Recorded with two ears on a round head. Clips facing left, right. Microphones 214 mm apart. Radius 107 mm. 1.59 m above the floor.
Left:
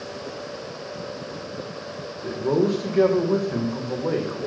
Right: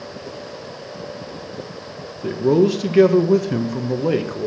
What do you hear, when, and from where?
2.2 s a man speaking: 40° right (ahead or behind), 1.6 m